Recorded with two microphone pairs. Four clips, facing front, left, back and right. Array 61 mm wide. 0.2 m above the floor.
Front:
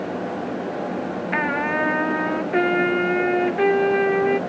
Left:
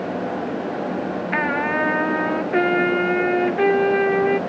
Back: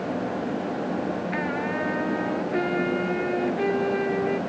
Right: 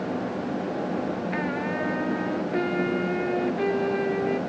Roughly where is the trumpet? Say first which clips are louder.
Left 7 dB, front 9 dB; ahead left.